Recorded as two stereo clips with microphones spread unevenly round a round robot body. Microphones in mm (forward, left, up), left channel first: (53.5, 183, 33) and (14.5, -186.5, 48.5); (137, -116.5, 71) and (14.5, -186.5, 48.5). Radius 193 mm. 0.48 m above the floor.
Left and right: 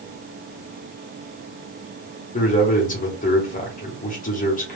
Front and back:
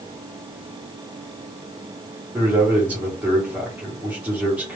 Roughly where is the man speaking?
Behind left.